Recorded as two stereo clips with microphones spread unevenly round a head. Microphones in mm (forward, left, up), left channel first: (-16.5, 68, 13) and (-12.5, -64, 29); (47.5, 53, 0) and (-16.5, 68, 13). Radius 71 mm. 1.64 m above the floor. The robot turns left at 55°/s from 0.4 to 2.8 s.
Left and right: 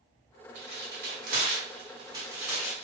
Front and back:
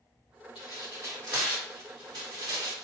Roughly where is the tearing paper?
Ahead right.